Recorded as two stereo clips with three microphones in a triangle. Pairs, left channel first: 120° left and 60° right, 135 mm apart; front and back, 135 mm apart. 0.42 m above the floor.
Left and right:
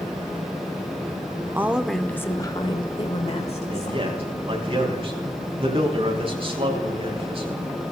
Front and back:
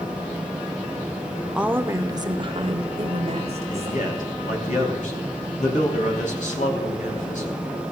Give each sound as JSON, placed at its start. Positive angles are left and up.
{"t": 1.6, "sound": "a woman speaking", "azimuth_deg": -105, "distance_m": 0.8}
{"t": 3.7, "sound": "a man speaking", "azimuth_deg": -15, "distance_m": 4.0}